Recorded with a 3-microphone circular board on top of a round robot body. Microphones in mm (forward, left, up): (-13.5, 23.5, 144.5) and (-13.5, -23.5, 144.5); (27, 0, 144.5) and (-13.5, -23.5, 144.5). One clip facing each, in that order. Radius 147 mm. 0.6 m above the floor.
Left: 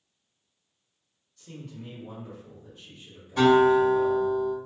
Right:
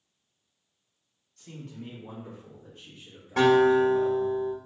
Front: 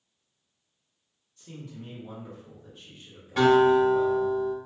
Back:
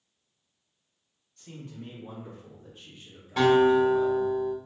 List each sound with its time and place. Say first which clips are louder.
1.4 s a man speaking: even, even; 120° right, 1.8 m; by 4.4 s 35° right, 1.2 m
3.4 s a guitar: left 1 dB, front 1 dB; 55° right, 1.5 m